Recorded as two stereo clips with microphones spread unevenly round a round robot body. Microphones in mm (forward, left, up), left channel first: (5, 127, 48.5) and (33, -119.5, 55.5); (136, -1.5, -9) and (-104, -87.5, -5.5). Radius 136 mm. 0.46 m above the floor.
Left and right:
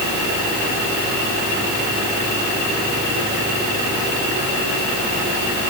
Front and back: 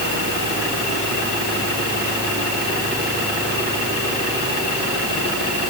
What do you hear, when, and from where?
Only background noise.